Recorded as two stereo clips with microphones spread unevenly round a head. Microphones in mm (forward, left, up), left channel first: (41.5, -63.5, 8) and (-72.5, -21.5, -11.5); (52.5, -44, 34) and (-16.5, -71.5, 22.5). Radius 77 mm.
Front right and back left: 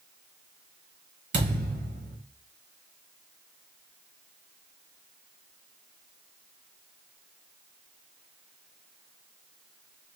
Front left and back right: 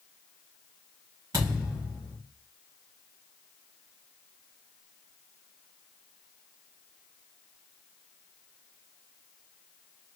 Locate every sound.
1.3 s a thud: 130° left, 2.5 m